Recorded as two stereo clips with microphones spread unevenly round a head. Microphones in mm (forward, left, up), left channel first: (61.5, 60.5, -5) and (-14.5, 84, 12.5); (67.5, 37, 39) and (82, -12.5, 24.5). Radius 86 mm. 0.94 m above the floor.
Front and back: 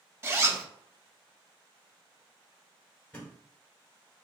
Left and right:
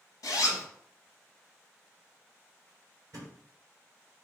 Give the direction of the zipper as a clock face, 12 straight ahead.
9 o'clock.